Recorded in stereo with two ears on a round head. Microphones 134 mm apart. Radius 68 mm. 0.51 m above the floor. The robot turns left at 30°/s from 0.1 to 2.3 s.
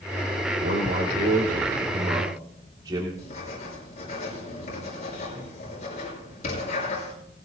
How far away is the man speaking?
About 2 m.